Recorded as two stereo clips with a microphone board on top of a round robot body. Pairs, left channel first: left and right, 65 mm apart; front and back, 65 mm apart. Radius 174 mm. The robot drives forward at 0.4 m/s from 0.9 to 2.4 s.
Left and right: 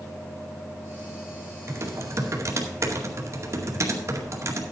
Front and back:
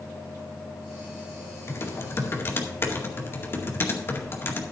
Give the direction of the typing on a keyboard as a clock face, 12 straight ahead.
2 o'clock.